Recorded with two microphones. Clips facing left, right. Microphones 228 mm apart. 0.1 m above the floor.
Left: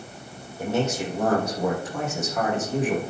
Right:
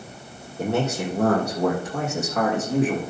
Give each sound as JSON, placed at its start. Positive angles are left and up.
{"t": 0.6, "sound": "a man speaking", "side_deg": -60, "distance_m": 3.5}